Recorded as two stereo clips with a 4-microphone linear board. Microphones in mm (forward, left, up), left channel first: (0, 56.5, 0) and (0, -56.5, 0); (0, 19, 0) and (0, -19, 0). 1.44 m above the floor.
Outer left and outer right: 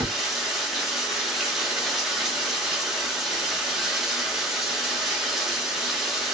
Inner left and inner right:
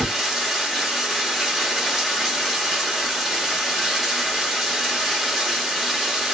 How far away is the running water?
About 0.7 m.